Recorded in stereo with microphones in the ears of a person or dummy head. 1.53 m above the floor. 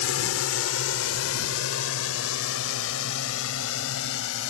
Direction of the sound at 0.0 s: 70° left (ahead or behind).